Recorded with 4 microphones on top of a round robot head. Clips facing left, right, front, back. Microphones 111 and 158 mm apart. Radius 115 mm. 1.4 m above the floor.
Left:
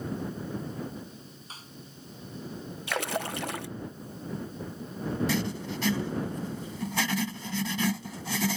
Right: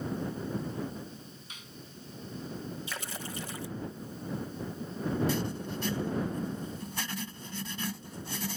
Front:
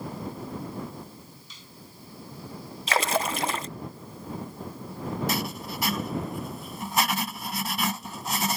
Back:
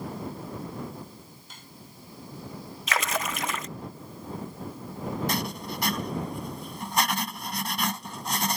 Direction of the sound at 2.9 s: 55° left.